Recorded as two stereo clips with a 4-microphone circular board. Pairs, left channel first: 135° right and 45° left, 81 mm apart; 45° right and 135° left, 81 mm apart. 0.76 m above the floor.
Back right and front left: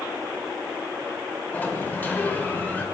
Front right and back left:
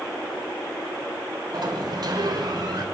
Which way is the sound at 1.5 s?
160° left.